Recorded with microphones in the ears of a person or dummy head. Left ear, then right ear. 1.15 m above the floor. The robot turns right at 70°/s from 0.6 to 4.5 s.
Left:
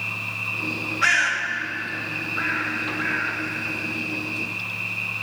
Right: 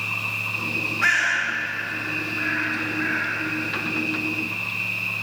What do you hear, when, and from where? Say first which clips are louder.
0.0 s an insect: right 2 dB; 105° right, 5.5 m; by 5.2 s 170° left, 5.5 m
1.0 s a bird: left 1 dB; 10° left (ahead or behind), 5.5 m